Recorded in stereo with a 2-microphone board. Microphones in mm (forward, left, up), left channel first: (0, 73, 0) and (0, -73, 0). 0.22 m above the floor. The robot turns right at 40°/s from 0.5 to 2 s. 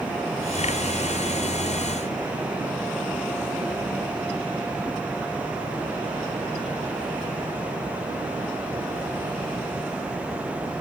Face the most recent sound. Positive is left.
No sound to turn to.